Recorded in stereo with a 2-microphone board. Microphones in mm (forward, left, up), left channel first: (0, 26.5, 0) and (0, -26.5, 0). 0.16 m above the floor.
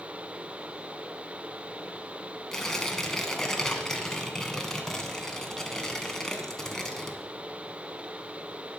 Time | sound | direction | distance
2.5 | tearing paper | 5° left (ahead or behind) | 1.7 m